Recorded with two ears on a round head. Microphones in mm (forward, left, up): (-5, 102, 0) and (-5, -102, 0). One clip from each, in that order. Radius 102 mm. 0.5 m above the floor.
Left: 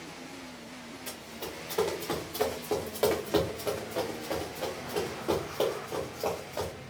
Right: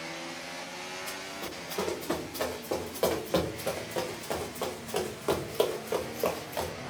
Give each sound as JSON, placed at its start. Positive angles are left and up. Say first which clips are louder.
{"t": 1.1, "sound": "running footsteps", "louder": "right 3 dB", "side_deg": 30, "distance_m": 2.5}